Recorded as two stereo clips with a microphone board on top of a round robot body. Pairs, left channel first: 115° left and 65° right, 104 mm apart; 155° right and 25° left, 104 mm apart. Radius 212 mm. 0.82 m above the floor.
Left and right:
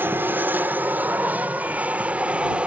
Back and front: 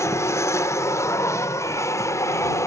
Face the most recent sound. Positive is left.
turn(degrees=-135)